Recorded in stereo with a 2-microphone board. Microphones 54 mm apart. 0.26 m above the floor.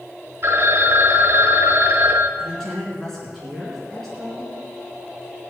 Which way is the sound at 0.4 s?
50° right (ahead or behind).